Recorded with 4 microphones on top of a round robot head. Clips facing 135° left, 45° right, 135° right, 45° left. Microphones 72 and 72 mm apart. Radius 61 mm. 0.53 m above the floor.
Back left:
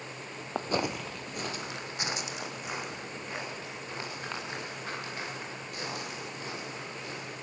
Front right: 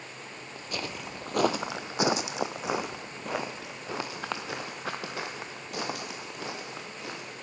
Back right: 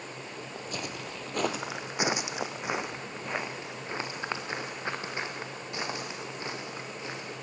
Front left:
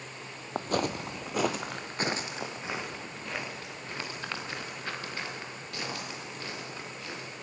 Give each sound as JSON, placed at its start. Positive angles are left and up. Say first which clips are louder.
{"t": 0.6, "sound": "footsteps", "louder": "back left 7 dB, front left 10 dB", "azimuth_deg": 95, "distance_m": 0.6}